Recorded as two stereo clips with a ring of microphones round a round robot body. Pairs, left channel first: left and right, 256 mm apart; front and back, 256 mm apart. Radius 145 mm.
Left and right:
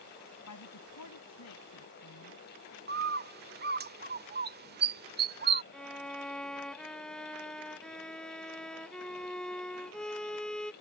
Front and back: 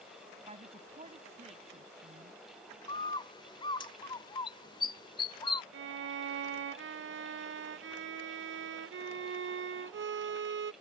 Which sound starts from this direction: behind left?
A woman speaking, at 0.5 s.